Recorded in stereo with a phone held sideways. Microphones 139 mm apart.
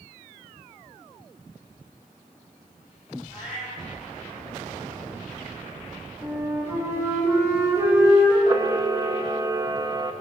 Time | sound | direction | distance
3.3 | a cat meowing | 10° right (ahead or behind) | 5 m
6.2 | a flute | 20° right (ahead or behind) | 4 m
8.5 | a camera shutter | 25° right (ahead or behind) | 0.7 m